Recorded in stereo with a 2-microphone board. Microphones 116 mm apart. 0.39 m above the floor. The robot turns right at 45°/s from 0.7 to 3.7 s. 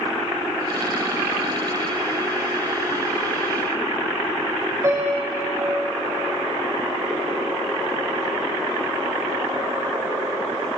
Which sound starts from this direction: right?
A piano, at 4.8 s.